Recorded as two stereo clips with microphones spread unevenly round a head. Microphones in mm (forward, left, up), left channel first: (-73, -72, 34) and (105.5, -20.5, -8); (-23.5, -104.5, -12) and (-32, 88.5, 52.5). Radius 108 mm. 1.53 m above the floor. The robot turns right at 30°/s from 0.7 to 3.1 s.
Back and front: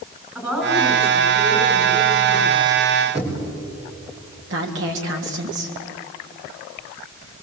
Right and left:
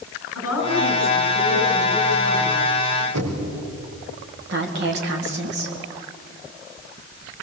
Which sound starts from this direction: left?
Knocking, at 3.1 s.